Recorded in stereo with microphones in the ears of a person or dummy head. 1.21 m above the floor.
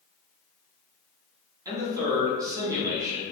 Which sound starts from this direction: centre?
A man speaking, at 1.6 s.